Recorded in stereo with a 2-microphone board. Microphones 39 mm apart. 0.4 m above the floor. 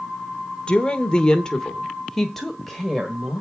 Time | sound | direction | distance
0.7 | a woman speaking | 25° left (ahead or behind) | 1.0 m